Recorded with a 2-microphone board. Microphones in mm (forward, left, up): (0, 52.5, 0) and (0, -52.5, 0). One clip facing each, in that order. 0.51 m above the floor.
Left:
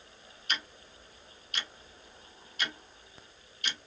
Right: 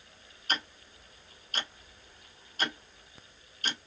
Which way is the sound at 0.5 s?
40° right (ahead or behind).